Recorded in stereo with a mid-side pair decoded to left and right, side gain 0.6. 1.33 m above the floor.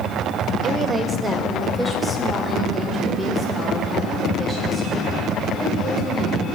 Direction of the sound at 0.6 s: 40° right.